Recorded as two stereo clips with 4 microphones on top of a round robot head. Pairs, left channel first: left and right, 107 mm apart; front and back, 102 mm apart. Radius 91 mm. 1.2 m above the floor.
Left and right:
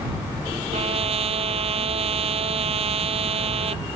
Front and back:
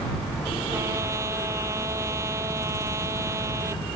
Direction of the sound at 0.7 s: 110° right.